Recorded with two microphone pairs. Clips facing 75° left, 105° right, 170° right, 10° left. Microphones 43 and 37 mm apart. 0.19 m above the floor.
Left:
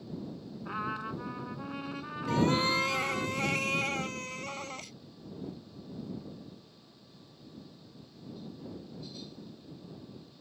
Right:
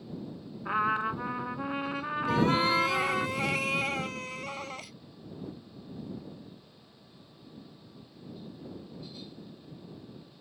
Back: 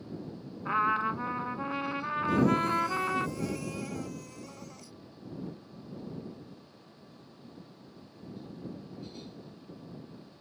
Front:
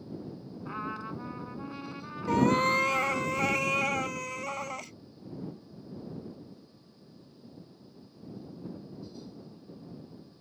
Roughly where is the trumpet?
Behind right.